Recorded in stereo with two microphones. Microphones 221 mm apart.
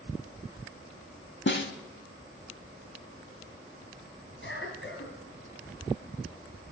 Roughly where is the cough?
Left.